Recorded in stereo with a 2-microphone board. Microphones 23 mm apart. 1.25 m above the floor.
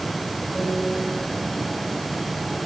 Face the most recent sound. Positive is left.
turn(degrees=35)  # may be behind; listen again after turning